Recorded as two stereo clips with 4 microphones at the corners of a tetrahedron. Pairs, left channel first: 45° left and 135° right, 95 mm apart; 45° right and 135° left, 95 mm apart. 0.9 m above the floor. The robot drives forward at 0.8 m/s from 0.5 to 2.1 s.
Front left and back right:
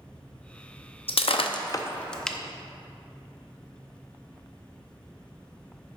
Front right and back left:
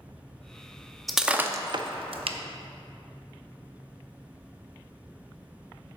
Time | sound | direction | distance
1.1 | breaking glass | 45° left | 0.7 m